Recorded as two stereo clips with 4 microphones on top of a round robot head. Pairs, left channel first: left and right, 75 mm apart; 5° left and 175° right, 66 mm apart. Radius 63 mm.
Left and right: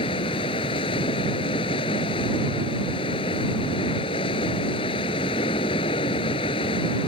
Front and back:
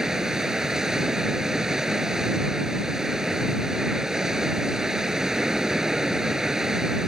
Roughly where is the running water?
Left.